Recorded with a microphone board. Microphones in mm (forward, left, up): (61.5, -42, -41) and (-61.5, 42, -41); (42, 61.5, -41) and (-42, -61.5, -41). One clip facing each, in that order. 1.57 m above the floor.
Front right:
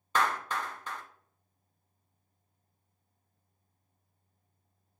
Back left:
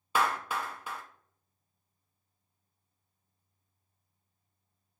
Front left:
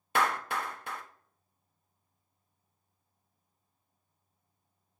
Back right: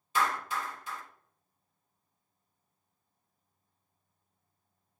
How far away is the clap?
About 0.6 m.